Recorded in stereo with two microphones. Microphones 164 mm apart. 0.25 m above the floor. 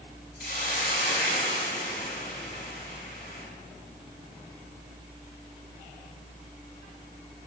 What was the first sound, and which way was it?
A hiss, 55° left (ahead or behind).